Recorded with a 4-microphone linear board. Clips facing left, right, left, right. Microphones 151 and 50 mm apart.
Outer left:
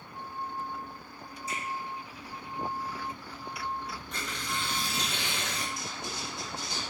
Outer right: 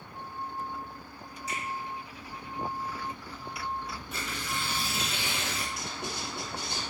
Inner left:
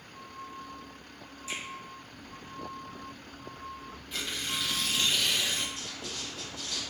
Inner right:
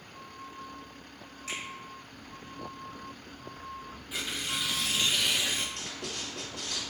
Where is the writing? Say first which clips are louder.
Outer right 2 dB, inner right 1 dB; 65° right (ahead or behind), 1.9 m.